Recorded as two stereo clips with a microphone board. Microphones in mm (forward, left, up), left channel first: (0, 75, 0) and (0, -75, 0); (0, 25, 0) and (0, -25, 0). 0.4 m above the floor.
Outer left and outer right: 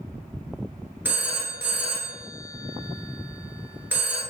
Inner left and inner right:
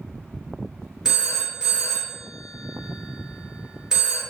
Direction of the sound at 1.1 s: 10° right (ahead or behind).